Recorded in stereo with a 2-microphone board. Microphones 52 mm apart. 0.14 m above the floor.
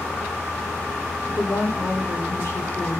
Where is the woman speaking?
55° left (ahead or behind), 6 m.